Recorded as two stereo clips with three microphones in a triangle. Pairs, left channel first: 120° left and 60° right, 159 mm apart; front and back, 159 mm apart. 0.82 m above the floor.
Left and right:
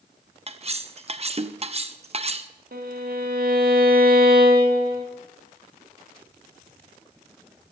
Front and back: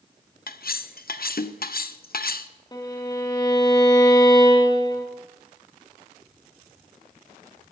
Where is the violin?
65° right, 1.5 m.